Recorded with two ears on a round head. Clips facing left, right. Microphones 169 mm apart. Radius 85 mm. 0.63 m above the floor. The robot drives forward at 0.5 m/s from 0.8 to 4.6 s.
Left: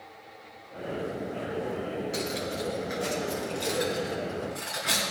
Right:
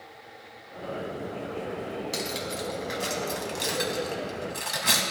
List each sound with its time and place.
2.1 s cutlery clinking: 65° right (ahead or behind), 2.5 m; by 5.0 s 85° right, 2.5 m